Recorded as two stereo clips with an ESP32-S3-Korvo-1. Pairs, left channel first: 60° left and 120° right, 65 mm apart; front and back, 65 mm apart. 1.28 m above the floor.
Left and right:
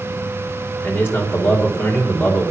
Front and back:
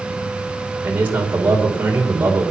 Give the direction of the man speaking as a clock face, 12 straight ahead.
8 o'clock.